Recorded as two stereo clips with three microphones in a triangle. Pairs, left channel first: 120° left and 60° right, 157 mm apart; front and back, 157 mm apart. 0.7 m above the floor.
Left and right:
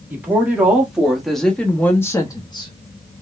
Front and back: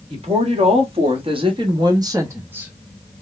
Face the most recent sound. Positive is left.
turn(degrees=105)